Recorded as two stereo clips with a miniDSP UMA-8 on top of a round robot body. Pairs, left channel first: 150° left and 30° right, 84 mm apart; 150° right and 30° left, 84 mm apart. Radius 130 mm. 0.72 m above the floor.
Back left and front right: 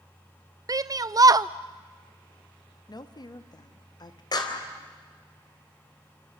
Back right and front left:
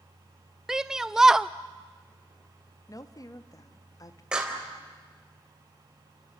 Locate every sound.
0.7 s a shout: 50° right, 0.5 m
2.9 s a woman speaking: 170° left, 1.6 m
4.3 s a clap: 110° left, 3.5 m